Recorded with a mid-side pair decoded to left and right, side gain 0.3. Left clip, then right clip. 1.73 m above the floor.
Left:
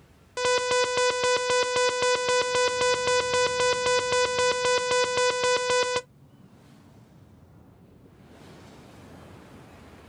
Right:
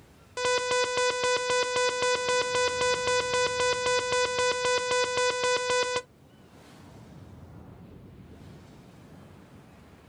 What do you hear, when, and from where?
0.4 s an alarm: 30° left, 0.5 m